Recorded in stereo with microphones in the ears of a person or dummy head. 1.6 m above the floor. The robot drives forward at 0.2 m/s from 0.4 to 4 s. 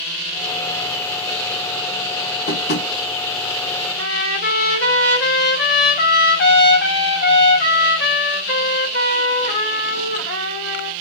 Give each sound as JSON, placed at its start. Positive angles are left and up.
{"t": 2.5, "sound": "tapping", "side_deg": 55, "distance_m": 1.6}
{"t": 4.0, "sound": "a trumpet", "side_deg": 60, "distance_m": 2.0}